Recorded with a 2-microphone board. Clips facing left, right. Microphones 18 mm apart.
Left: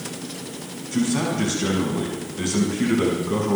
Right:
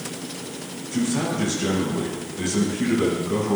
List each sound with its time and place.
0.9 s a man speaking: 20° left (ahead or behind), 6.5 m